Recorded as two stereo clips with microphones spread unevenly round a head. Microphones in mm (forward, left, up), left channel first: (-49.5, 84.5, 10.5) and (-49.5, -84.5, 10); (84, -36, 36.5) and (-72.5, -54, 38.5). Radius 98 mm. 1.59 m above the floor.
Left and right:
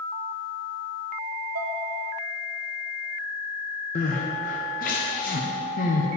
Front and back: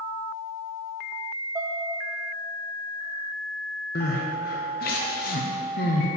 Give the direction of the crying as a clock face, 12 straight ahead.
11 o'clock.